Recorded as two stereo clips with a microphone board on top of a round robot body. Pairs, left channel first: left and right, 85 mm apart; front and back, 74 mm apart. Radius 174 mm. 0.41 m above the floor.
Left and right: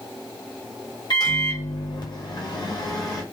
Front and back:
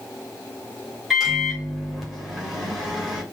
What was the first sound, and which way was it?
A microwave, 90° left.